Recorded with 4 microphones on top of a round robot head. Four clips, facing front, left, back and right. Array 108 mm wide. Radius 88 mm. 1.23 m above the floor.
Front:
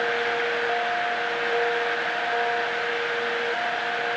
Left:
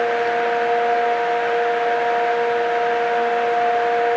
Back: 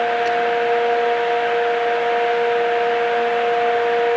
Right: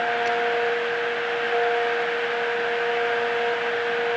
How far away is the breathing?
I don't hear breathing.